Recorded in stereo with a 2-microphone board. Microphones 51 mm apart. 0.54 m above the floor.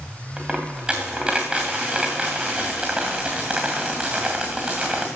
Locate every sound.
0.4 s a dropped coin: 15° right (ahead or behind), 2 m